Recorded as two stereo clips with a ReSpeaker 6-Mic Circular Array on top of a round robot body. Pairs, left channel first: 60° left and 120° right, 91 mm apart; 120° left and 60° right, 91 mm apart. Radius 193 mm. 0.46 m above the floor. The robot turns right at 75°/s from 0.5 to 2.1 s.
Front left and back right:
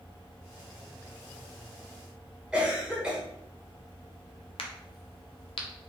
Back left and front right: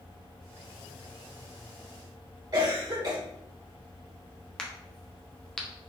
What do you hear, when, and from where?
2.5 s a cough: 40° right, 1.0 m
4.6 s a crack: 40° left, 0.5 m